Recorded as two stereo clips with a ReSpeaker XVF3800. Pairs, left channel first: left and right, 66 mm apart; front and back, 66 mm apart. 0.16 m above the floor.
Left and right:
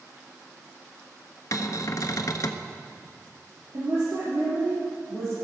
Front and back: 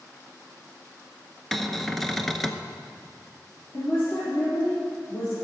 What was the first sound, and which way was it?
A cupboard door, 85° left.